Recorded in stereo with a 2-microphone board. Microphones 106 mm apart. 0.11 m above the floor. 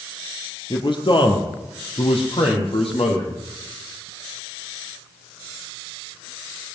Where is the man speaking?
50° left (ahead or behind), 2.5 m; by 3.3 s 70° left (ahead or behind), 3.5 m.